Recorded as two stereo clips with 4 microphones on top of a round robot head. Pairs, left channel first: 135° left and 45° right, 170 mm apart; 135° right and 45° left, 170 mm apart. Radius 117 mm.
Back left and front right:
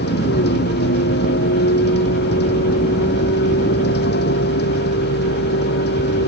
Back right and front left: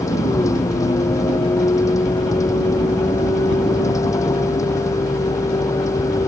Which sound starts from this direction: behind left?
A vehicle, at 0.0 s.